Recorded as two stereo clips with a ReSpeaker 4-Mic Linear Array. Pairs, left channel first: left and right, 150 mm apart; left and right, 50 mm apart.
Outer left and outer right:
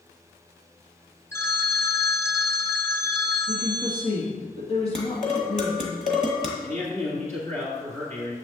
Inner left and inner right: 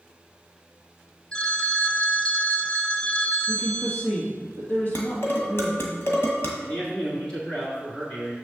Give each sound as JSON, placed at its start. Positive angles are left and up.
{"t": 1.3, "sound": "a phone ringing", "side_deg": 15, "distance_m": 0.6}
{"t": 3.5, "sound": "a woman speaking", "side_deg": 45, "distance_m": 3.0}
{"t": 5.0, "sound": "dishes clattering", "side_deg": 55, "distance_m": 1.6}
{"t": 6.6, "sound": "a man speaking", "side_deg": 20, "distance_m": 1.9}